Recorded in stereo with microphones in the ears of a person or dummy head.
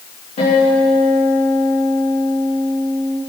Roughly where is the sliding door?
I don't hear a sliding door.